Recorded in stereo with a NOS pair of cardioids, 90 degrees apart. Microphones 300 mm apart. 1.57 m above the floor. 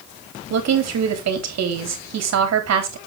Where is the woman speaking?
60° right, 3.5 m.